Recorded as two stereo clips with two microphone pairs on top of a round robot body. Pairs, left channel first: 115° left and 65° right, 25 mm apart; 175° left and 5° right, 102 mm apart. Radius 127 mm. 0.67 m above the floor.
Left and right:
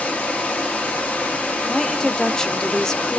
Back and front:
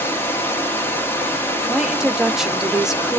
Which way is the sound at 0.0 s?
105° left.